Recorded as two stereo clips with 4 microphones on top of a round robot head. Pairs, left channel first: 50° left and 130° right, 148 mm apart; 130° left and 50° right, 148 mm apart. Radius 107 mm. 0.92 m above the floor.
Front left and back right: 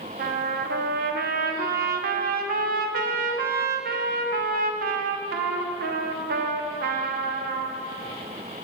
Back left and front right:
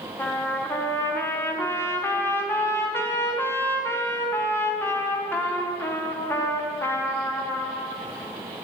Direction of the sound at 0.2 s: 155° right.